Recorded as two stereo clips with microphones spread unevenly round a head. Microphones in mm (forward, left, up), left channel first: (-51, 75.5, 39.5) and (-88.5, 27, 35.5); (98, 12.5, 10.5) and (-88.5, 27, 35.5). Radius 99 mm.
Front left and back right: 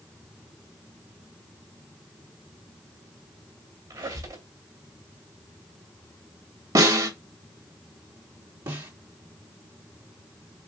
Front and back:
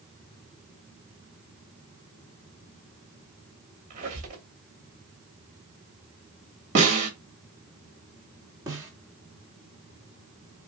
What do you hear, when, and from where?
3.9 s a squeak: 135° right, 2.5 m
6.8 s a snare drum: 130° right, 3.5 m
8.7 s a snare drum: 115° right, 2.5 m